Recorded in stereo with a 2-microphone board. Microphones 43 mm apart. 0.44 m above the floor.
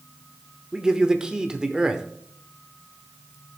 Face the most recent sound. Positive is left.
turn(degrees=-20)  # may be behind; listen again after turning